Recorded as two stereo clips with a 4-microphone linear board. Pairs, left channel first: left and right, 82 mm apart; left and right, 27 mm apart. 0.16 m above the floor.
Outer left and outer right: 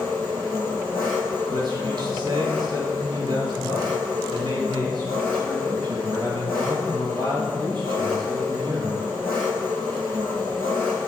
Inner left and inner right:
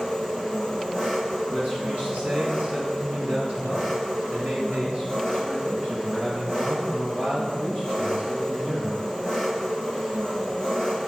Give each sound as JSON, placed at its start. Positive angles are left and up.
{"t": 0.0, "sound": "an engine running", "side_deg": -45, "distance_m": 3.0}
{"t": 1.5, "sound": "a man speaking", "side_deg": -60, "distance_m": 3.0}